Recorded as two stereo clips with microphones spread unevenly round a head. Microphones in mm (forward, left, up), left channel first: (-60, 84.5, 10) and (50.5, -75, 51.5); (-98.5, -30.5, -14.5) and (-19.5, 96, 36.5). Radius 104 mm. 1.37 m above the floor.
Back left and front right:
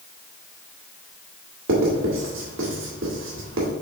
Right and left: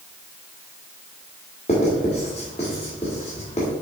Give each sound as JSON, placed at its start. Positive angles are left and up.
{"t": 1.7, "sound": "writing", "azimuth_deg": -55, "distance_m": 1.9}